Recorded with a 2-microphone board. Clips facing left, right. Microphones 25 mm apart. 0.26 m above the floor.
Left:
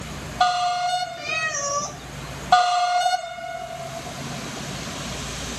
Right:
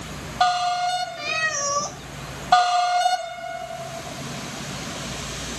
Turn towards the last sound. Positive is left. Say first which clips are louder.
# right 1 dB
turn(degrees=-35)  # may be behind; listen again after turning